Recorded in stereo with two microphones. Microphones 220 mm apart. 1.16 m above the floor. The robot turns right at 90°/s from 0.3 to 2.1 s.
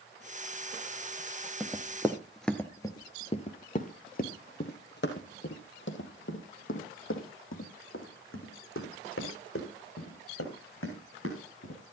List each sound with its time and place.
1.6 s running footsteps: 5° right (ahead or behind), 1.2 m; by 11.8 s 75° left (ahead or behind), 6 m